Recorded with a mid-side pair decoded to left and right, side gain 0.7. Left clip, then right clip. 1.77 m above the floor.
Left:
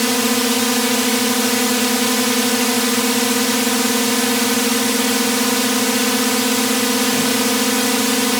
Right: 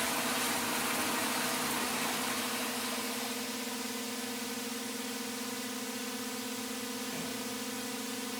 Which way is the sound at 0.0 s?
65° left.